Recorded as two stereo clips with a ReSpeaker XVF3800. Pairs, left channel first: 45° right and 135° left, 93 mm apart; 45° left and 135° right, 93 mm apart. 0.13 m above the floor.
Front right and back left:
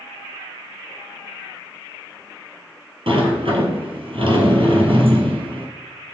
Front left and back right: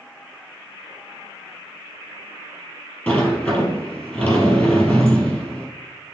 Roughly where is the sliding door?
Behind left.